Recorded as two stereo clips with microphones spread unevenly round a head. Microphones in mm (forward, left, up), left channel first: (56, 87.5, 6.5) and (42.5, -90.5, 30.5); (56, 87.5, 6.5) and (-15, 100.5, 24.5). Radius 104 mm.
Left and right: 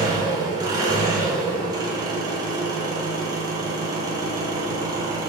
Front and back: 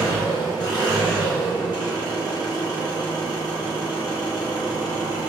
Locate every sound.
0.0 s an engine running: 40° right, 0.9 m